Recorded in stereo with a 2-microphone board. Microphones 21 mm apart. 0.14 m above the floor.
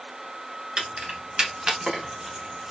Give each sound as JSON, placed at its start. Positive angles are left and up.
{"t": 0.8, "sound": "keys jangling", "side_deg": -50, "distance_m": 1.1}